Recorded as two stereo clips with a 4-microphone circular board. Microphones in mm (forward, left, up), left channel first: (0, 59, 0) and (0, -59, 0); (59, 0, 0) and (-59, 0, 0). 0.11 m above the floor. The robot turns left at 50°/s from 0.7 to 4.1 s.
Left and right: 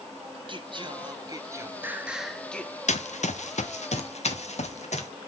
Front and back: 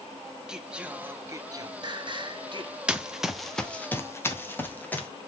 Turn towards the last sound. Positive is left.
turn(degrees=75)